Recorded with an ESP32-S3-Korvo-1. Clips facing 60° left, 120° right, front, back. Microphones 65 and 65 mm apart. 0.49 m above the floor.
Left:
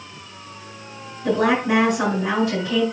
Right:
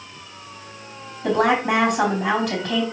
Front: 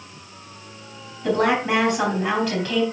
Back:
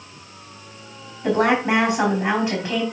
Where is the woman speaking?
115° right, 3.5 m.